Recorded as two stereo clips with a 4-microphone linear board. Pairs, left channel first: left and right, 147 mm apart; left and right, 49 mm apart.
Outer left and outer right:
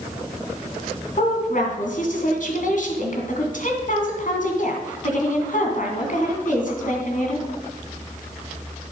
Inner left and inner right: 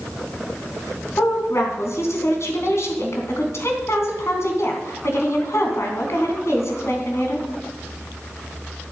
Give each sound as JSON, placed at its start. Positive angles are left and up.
{"t": 1.1, "sound": "a woman speaking", "side_deg": 65, "distance_m": 2.5}